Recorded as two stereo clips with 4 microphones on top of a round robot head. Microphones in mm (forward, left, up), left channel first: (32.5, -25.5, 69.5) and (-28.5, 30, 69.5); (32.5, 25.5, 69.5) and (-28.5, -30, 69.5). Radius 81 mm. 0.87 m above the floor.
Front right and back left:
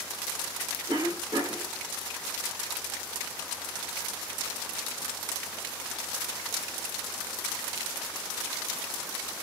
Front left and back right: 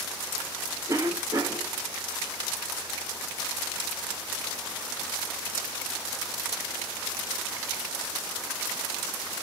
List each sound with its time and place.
0.9 s a cough: 170° left, 1.6 m